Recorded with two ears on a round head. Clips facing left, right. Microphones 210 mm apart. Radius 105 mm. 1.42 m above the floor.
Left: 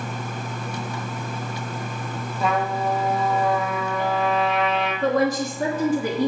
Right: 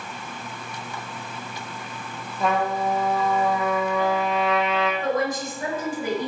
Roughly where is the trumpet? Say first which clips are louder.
Even; centre.